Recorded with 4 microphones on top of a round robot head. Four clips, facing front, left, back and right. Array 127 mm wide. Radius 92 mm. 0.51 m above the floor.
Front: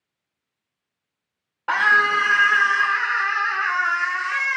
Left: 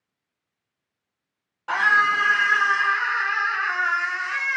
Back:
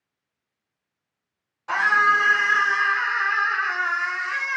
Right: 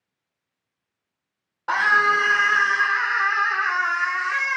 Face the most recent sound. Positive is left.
turn(degrees=-50)